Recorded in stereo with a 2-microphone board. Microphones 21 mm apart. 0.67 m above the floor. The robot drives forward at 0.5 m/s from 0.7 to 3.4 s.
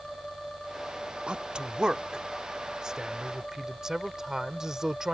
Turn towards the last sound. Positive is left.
turn(degrees=-30)  # may be behind; listen again after turning